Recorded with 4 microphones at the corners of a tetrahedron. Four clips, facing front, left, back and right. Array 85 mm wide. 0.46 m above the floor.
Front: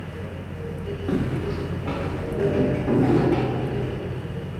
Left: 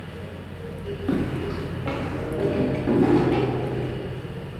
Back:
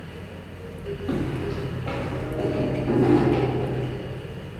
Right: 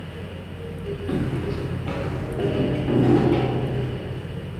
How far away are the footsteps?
About 2 m.